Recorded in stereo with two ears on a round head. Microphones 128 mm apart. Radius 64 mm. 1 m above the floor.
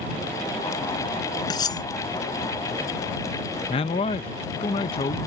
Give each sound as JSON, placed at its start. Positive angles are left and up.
{"t": 1.5, "sound": "cutlery clinking", "side_deg": 30}
{"t": 3.7, "sound": "a man speaking", "side_deg": 40}